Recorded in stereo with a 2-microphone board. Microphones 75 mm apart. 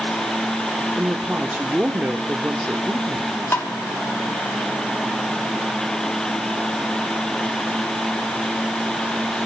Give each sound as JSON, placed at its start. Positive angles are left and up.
{"t": 0.9, "sound": "a woman speaking", "side_deg": -20, "distance_m": 0.9}
{"t": 3.5, "sound": "tapping", "side_deg": 30, "distance_m": 0.9}